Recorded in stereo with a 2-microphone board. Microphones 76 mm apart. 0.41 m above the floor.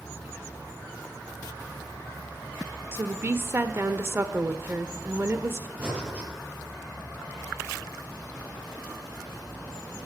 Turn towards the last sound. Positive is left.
turn(degrees=-20)  # may be behind; listen again after turning